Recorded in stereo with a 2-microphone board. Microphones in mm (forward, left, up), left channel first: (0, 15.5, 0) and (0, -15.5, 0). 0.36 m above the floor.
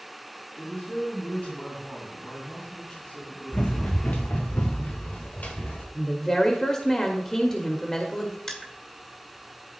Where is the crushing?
20° left (ahead or behind), 1.4 m.